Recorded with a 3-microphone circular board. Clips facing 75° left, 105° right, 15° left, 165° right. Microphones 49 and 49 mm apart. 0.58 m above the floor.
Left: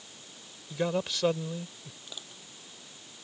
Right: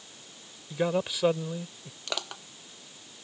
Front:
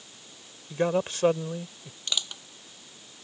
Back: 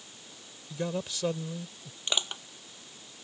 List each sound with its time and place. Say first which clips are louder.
0.7 s a man speaking: right 2 dB, front 8 dB; 25° right
2.1 s crushing: right 14 dB, back 1 dB; 100° right